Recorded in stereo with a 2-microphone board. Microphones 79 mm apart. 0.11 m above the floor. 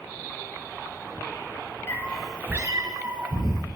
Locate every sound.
1.9 s a cat meowing: 30° left (ahead or behind), 1.1 m; by 3.6 s 70° right (ahead or behind), 2 m